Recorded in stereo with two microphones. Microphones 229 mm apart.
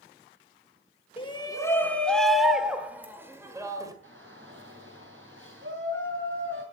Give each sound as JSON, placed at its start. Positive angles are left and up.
{"t": 1.2, "sound": "a shout", "side_deg": 25, "distance_m": 1.1}
{"t": 4.0, "sound": "a shout", "side_deg": -55, "distance_m": 6.5}